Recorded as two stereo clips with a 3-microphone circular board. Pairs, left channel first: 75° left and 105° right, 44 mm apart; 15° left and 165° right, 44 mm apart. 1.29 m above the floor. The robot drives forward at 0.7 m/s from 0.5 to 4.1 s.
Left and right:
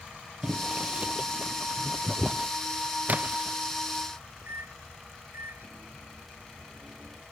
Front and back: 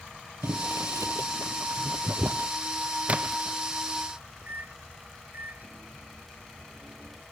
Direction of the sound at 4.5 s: 125° right.